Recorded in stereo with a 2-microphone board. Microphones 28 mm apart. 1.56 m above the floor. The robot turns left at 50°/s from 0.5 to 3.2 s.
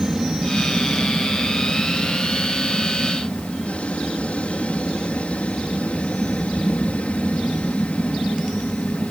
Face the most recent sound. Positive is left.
turn(degrees=60)